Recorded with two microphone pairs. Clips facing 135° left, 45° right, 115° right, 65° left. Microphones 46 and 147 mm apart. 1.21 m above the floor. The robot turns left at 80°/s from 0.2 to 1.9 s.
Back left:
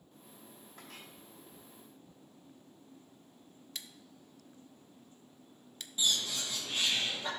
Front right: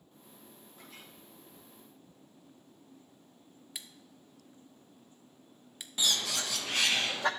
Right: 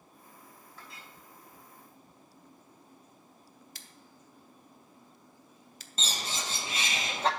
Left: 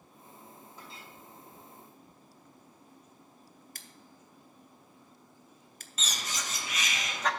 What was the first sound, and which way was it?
A clink, 135° left.